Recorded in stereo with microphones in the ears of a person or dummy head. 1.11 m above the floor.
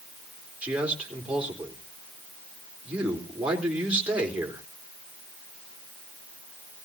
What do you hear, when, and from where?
0.6 s a man speaking: 10° right (ahead or behind), 4 m